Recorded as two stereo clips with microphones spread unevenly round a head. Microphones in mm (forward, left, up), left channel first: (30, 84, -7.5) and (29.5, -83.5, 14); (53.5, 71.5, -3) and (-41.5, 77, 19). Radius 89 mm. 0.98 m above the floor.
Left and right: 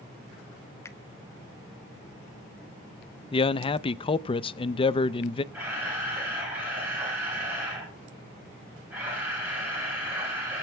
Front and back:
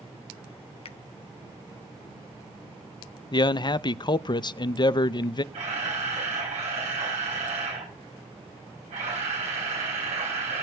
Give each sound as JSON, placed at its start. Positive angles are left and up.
{"t": 0.8, "sound": "a finger snap", "azimuth_deg": 15, "distance_m": 0.9}
{"t": 3.3, "sound": "a man speaking", "azimuth_deg": 35, "distance_m": 0.5}
{"t": 5.5, "sound": "a camera shutter", "azimuth_deg": -170, "distance_m": 6.5}